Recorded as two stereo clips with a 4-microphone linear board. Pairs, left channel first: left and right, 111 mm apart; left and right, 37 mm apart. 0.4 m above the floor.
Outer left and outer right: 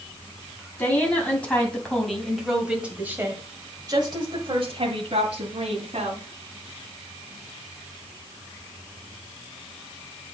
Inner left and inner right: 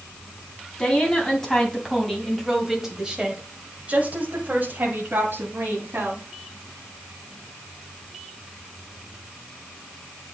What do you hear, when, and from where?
0.8 s a woman speaking: 15° left (ahead or behind), 2.5 m; by 6.2 s 70° right (ahead or behind), 2.5 m